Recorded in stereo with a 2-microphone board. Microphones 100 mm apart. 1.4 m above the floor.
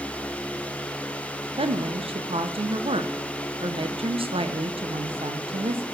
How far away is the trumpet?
I don't hear a trumpet.